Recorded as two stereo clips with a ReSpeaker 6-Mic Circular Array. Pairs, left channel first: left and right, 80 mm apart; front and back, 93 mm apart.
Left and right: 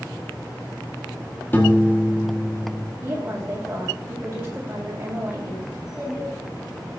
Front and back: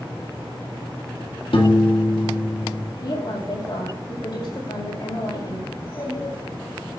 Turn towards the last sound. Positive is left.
turn(degrees=-10)